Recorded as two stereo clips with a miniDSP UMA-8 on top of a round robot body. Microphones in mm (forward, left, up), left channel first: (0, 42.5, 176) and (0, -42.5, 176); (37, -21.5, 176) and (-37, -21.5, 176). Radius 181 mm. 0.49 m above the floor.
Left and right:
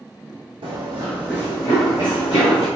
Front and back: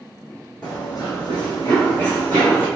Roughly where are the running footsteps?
Right.